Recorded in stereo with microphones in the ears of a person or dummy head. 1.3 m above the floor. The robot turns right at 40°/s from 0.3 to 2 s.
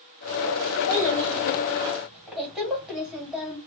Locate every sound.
0.9 s a child speaking: 135° left, 1.9 m; by 3.6 s straight behind, 1.9 m